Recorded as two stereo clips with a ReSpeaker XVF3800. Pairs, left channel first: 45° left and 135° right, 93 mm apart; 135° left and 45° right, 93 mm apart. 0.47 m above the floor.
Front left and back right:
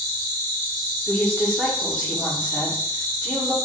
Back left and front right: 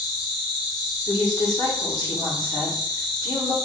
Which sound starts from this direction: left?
A woman speaking, at 1.1 s.